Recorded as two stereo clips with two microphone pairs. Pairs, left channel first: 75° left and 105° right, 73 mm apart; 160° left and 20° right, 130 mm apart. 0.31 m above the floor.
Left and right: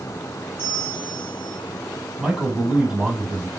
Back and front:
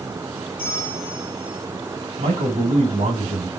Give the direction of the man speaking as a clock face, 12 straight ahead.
1 o'clock.